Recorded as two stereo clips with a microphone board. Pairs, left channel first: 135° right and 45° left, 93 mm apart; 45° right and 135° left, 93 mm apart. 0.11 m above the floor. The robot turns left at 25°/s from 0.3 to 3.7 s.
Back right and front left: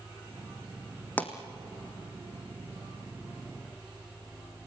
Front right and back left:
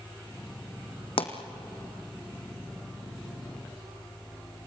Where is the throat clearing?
No throat clearing in this recording.